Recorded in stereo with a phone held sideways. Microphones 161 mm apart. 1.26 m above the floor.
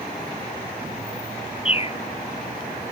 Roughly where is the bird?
Left.